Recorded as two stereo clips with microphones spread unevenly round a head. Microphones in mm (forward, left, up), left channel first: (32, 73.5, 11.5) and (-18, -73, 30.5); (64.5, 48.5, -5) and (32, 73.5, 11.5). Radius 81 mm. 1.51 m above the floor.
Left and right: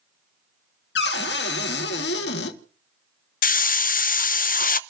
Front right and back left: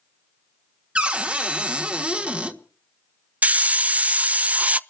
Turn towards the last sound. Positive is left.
turn(degrees=110)